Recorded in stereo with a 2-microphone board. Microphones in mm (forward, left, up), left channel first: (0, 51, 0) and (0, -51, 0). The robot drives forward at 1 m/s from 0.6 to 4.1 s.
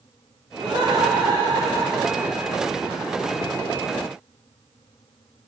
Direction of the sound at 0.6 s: 50° right (ahead or behind).